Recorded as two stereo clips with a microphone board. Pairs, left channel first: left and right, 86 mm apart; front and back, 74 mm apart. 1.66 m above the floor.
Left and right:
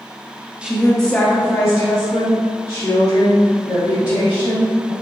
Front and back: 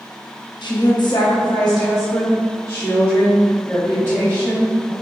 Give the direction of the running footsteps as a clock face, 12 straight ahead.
I don't hear running footsteps.